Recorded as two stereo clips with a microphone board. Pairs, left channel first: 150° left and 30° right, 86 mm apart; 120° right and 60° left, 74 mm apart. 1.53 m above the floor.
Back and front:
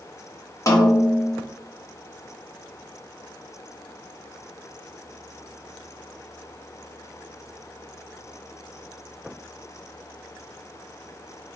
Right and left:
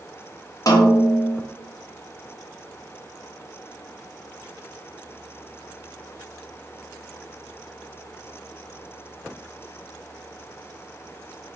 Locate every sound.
0.7 s a snare drum: 160° right, 0.9 m